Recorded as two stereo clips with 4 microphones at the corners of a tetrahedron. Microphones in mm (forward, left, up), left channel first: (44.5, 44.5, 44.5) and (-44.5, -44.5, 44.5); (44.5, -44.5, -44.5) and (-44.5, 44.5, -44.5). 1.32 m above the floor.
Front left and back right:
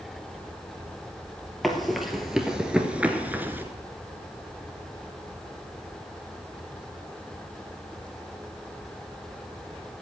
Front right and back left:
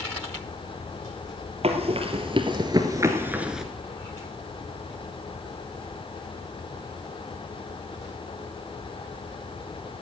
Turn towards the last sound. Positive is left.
turn(degrees=-145)